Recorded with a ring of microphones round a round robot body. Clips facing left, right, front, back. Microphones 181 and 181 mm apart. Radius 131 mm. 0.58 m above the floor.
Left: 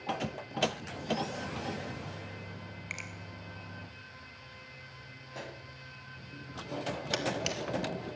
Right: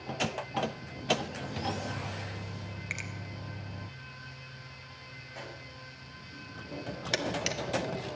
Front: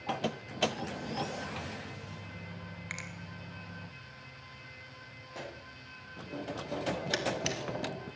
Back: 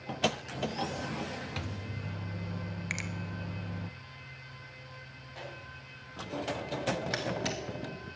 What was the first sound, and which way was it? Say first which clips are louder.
A microwave: right 3 dB, back 2 dB; 165° right.